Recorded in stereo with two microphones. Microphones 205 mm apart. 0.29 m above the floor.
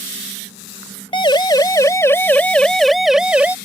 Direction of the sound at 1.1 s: 25° left (ahead or behind).